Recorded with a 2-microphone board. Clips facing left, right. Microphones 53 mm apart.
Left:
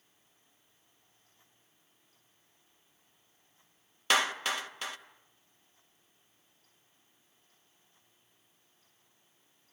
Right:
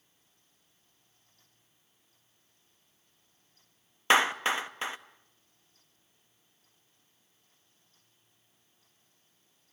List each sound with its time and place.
4.1 s a clap: 30° right (ahead or behind), 0.9 m